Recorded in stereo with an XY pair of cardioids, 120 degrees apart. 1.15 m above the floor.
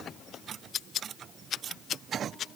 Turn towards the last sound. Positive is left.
No sound to turn to.